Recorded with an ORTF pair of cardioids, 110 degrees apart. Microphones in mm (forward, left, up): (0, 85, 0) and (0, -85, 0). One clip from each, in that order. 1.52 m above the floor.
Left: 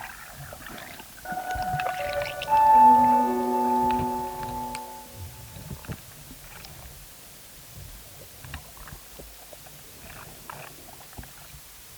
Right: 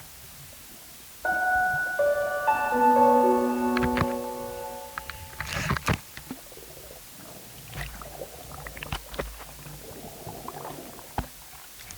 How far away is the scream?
I don't hear a scream.